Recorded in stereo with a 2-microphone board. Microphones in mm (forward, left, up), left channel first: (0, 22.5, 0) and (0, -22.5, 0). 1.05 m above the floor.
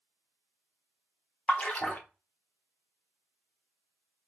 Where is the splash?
35° left (ahead or behind), 0.7 m.